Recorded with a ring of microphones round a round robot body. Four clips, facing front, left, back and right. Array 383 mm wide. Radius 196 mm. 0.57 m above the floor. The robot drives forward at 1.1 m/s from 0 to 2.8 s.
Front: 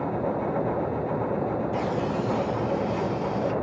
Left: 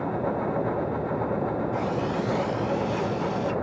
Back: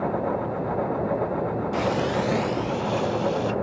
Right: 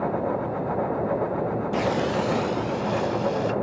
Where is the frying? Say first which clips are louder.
Right 3 dB, back 3 dB; 110° right, 0.6 m; by 3.5 s 160° right, 1.4 m.